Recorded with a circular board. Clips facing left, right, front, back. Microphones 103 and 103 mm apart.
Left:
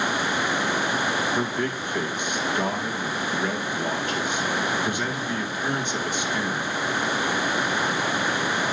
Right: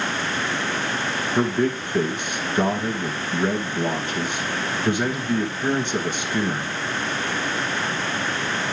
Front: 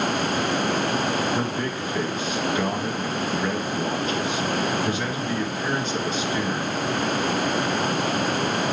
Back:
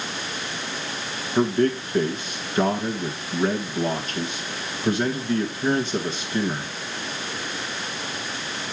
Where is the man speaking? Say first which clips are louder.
Right 5 dB, back 6 dB; 140° right, 1.4 m.